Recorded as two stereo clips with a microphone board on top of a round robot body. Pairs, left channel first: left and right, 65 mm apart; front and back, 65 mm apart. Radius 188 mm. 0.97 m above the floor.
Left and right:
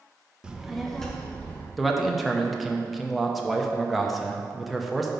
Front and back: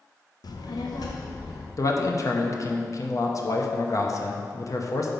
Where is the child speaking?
15° right, 0.8 m; by 1.7 s 20° left, 1.1 m.